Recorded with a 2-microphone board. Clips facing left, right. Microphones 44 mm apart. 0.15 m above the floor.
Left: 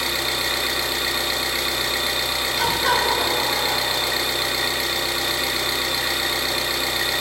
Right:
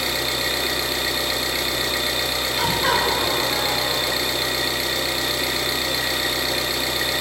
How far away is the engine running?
About 0.7 m.